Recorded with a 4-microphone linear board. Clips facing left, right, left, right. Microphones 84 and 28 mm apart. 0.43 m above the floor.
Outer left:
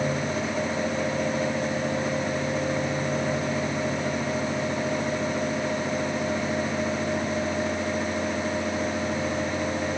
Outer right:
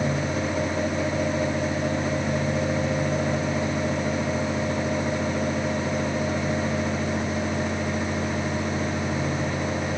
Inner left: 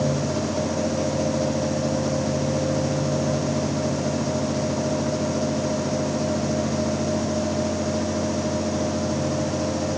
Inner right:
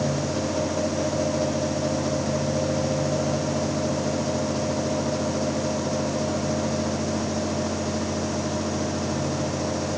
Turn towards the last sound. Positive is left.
No sound to turn to.